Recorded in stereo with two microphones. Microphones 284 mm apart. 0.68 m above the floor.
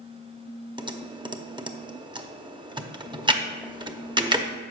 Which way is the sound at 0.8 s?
15° right (ahead or behind).